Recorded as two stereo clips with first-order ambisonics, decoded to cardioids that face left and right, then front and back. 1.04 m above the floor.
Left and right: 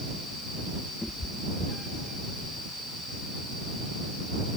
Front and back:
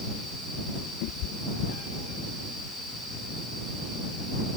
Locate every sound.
1.0 s a cat meowing: 5° left